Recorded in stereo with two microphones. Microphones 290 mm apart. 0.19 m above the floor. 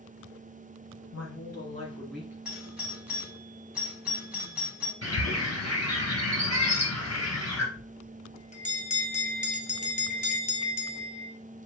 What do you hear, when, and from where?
1.1 s a woman speaking: 50° left (ahead or behind), 2 m; by 2.4 s 10° right (ahead or behind), 1.5 m
2.5 s a doorbell: 5° right (ahead or behind), 1.5 m
5.0 s a bird: 55° left (ahead or behind), 2.5 m
7.8 s a bell: 25° left (ahead or behind), 0.7 m